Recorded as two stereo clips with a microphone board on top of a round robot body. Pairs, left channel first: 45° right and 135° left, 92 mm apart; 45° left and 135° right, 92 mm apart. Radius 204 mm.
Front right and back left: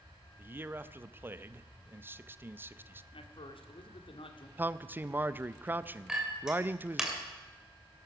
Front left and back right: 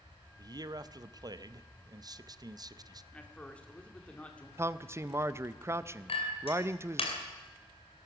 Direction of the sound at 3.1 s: 30° right.